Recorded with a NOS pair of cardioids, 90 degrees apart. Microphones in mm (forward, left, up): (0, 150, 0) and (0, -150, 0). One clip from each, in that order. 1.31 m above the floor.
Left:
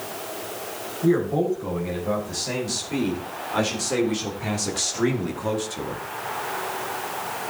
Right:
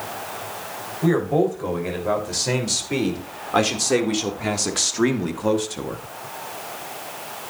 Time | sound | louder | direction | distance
1.0 | a man speaking | right 2 dB | 65° right | 6 m